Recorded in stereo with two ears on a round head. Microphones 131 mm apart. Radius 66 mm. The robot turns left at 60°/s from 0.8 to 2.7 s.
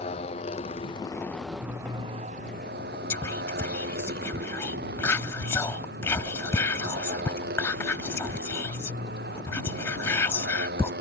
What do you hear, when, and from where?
0.0 s a motorcycle: 40° left; by 11.0 s 75° right
3.1 s whispering: 15° left (ahead or behind)